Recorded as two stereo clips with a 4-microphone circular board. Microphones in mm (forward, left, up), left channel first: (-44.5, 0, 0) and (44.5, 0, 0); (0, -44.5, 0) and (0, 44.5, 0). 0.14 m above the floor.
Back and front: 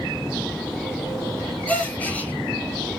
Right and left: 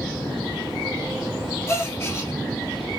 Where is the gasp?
120° right, 1.0 m.